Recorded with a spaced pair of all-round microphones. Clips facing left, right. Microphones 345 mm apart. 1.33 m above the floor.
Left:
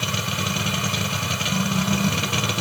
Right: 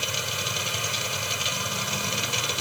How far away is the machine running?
About 1.3 m.